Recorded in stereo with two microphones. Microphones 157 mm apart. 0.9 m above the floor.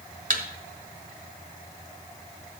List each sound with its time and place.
0.3 s a thud: 60° right (ahead or behind), 1.7 m